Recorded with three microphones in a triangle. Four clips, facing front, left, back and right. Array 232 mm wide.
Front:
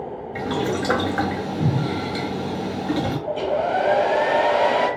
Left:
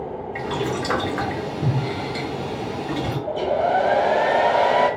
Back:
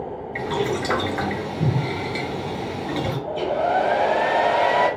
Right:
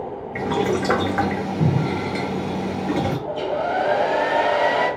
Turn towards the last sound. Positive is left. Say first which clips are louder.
# left 3 dB, back 2 dB
turn(degrees=85)